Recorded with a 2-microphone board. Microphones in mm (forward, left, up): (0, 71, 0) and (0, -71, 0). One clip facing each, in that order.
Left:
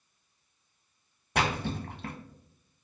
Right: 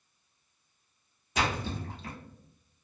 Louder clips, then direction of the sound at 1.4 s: Left 2 dB; 60° left (ahead or behind).